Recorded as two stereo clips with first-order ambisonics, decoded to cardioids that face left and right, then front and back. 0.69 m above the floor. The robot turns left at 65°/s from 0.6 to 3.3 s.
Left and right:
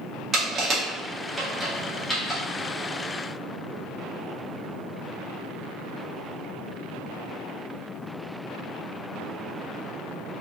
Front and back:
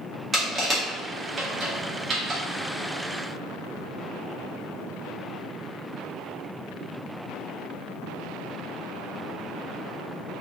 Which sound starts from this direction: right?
Crushing, at 0.3 s.